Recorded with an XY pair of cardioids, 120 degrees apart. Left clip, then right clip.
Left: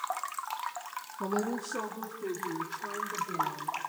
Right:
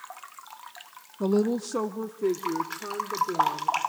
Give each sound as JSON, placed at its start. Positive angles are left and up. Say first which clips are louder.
{"t": 1.2, "sound": "a woman speaking", "louder": "right 7 dB", "azimuth_deg": -45, "distance_m": 0.8}